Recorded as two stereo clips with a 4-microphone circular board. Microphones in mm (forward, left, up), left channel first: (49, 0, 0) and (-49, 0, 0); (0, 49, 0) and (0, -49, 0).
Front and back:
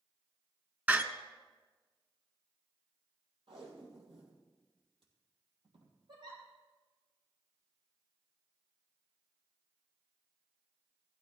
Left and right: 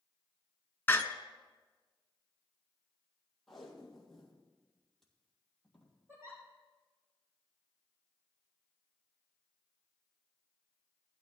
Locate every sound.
0.9 s a door slam: 130° left, 0.8 m
3.5 s tape being pulled: straight behind, 3 m
6.1 s a giggle: 150° right, 5 m